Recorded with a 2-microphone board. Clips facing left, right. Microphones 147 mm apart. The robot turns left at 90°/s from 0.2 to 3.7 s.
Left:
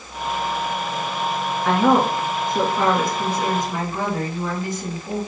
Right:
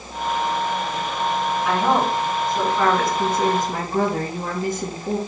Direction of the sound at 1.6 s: 125° left.